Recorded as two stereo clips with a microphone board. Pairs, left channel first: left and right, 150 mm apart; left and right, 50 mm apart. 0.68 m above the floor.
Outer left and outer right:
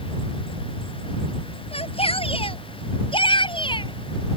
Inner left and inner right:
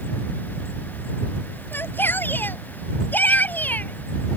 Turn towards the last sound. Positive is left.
turn(degrees=30)  # may be behind; listen again after turning